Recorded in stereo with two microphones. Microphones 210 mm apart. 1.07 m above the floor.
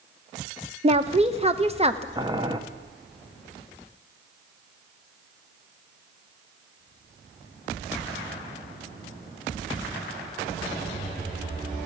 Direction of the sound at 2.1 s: 20° right (ahead or behind).